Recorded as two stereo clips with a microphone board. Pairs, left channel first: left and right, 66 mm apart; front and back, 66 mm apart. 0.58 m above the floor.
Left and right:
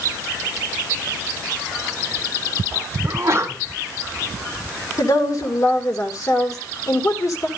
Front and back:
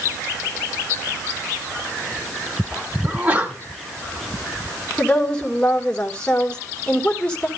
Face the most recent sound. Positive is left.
turn(degrees=70)